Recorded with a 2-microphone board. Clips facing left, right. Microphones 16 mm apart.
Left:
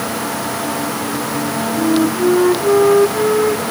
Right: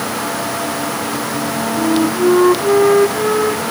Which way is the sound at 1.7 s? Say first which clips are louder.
Even; 20° right (ahead or behind).